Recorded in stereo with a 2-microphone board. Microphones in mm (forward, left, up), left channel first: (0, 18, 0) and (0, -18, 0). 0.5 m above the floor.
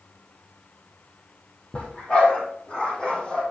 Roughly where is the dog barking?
Left.